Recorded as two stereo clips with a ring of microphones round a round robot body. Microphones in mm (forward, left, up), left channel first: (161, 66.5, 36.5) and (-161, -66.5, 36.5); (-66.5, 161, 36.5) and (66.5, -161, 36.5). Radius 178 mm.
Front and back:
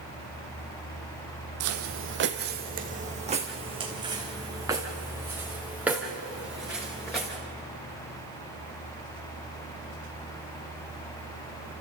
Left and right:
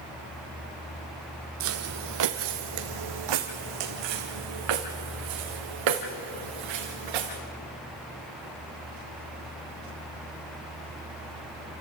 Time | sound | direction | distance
1.6 | footsteps | 115° right | 1.3 m